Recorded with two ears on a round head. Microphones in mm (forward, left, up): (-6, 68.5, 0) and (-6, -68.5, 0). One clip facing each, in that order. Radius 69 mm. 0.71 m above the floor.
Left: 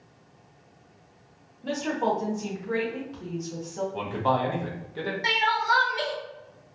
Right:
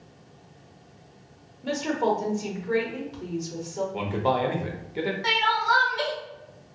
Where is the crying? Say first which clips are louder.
Left 1 dB; 20° left (ahead or behind), 0.8 m.